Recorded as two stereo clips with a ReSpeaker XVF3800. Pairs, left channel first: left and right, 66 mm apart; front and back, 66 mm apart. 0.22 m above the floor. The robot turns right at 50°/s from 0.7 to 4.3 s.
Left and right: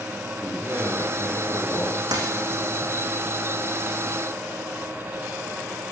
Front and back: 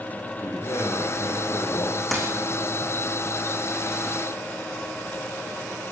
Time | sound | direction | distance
0.4 | a man speaking | 35° right | 8 m
2.1 | a dropped coin | 90° right | 5.5 m